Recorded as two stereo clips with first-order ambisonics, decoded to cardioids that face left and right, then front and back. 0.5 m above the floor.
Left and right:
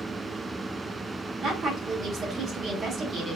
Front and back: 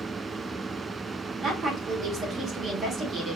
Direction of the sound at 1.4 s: 130° right.